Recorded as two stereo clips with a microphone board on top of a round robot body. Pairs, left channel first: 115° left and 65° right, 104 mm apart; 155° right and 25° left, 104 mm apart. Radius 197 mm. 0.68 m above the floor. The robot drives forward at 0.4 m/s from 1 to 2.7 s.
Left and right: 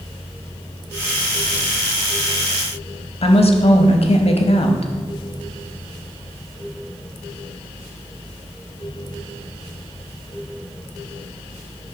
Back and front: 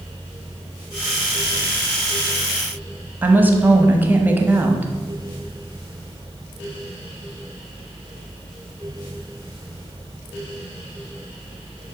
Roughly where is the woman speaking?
Left.